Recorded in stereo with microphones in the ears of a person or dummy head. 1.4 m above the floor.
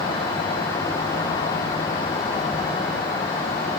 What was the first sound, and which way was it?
Only background noise.